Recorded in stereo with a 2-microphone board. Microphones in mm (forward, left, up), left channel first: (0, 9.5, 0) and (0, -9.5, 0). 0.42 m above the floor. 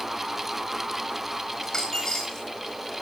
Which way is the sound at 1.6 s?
30° left (ahead or behind).